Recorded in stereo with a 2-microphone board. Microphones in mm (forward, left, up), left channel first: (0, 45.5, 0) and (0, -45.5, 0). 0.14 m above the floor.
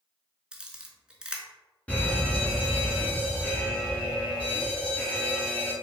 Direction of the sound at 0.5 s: 10° right (ahead or behind).